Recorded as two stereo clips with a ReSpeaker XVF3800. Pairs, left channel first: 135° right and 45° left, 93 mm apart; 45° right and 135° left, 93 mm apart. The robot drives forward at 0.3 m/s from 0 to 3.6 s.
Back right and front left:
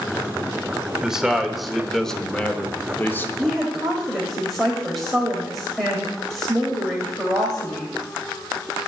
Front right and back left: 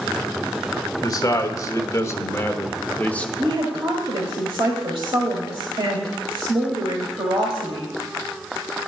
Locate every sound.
1.0 s a man speaking: 35° right, 1.0 m; by 3.3 s 105° right, 0.8 m
3.4 s a woman speaking: 135° left, 1.4 m